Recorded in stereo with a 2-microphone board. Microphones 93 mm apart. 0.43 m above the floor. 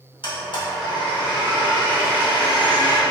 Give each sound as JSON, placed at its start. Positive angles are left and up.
{"t": 0.2, "sound": "a blender", "side_deg": 60, "distance_m": 1.5}